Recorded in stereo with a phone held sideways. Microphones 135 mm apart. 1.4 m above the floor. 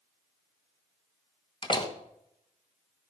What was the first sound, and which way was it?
A door slam, 35° left (ahead or behind).